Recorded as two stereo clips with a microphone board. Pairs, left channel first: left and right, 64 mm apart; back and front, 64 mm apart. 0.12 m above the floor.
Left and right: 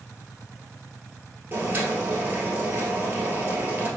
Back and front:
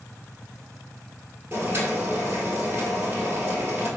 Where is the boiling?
40° right, 1.2 m.